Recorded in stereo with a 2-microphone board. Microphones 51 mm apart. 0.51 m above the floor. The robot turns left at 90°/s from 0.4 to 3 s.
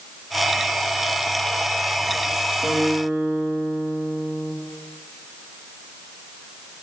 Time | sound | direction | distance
2.6 | a guitar | straight ahead | 4.5 m